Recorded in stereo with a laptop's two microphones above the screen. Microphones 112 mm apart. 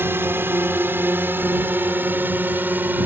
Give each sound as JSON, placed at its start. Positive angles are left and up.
{"t": 0.0, "sound": "a drone", "side_deg": -20}